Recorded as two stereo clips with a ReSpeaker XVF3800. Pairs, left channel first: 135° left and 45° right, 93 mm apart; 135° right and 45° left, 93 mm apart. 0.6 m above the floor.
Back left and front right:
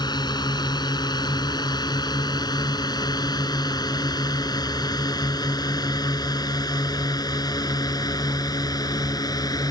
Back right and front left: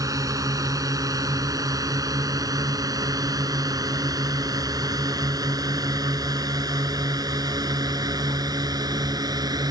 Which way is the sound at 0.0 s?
95° left.